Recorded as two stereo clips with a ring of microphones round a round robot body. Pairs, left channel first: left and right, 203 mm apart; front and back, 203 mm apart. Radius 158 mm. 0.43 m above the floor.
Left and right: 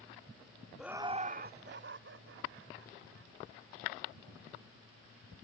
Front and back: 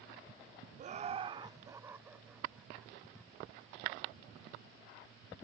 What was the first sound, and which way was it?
Laughter, straight behind.